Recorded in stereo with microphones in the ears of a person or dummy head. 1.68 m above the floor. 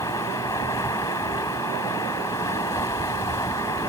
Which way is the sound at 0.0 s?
15° left (ahead or behind).